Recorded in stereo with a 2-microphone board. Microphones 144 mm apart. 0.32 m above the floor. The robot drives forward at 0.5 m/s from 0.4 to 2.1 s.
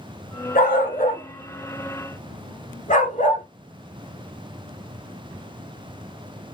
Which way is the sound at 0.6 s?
85° left.